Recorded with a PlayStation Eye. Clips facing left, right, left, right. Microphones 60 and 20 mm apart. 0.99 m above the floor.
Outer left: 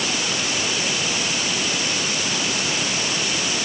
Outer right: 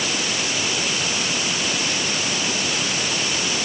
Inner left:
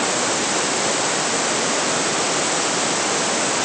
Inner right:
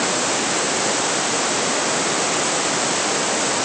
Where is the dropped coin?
No dropped coin in this recording.